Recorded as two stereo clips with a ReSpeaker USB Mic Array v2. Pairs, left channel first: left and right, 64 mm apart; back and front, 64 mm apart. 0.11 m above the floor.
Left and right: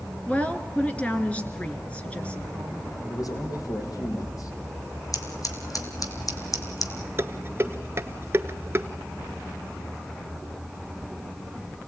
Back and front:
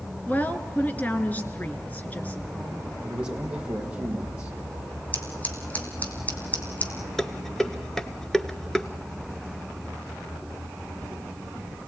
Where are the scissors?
115° left, 2.5 m.